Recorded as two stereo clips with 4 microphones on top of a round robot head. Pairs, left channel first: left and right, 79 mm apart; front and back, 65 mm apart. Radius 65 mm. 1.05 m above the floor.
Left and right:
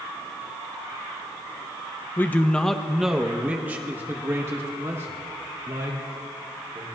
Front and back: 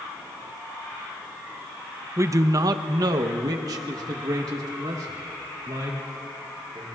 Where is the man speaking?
150° left, 0.7 m; by 6.8 s 140° right, 3 m.